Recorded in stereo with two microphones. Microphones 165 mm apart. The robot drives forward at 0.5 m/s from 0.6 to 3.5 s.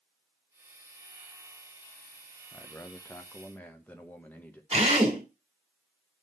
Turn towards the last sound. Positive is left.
turn(degrees=-35)  # may be behind; listen again after turning